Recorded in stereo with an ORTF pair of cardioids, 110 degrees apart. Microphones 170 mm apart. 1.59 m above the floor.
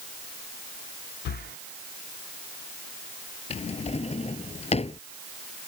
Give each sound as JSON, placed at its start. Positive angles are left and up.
{"t": 1.2, "sound": "breathing", "azimuth_deg": 65}
{"t": 3.5, "sound": "a drawer", "azimuth_deg": 40}